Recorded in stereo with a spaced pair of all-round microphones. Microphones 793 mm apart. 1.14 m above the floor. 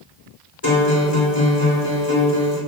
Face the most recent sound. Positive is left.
turn(degrees=25)  # may be behind; listen again after turning